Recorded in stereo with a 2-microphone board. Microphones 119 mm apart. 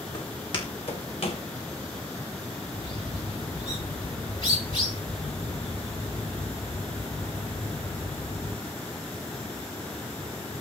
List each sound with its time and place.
0.1 s footsteps: 40° left (ahead or behind), 5 m; by 1.4 s 60° left (ahead or behind), 4 m
2.7 s a bird: 45° left (ahead or behind), 6.5 m